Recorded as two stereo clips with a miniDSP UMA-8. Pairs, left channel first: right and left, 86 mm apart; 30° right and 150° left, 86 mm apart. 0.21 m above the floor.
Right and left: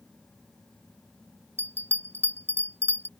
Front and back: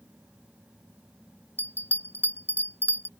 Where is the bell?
35° left.